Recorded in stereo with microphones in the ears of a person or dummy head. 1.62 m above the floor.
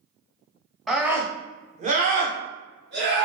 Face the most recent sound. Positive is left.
turn(degrees=-60)  # may be behind; listen again after turning